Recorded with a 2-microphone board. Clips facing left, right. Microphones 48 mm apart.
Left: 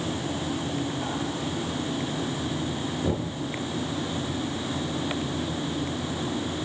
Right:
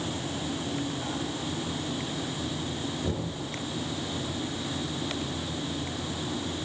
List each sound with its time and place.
3.0 s knocking: 20° left (ahead or behind), 4 m